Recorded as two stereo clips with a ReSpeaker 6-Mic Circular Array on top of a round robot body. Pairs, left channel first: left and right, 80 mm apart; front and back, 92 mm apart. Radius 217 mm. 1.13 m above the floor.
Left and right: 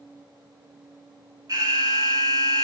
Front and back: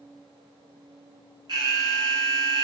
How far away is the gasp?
No gasp in this recording.